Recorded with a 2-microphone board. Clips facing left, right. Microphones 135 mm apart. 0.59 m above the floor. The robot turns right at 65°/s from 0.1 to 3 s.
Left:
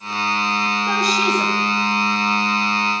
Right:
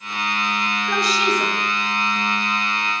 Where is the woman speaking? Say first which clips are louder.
Left 1 dB; 110° left, 3.5 m; by 1.6 s 160° left, 3.5 m.